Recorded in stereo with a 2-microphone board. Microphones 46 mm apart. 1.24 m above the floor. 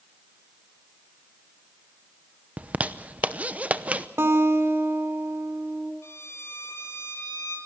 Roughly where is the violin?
Left.